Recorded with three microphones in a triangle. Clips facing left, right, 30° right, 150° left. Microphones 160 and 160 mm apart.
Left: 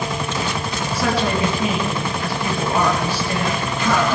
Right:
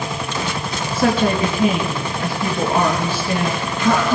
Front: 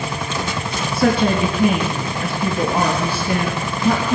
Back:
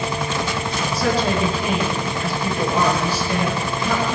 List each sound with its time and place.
0.9 s a woman speaking: 35° right, 3.5 m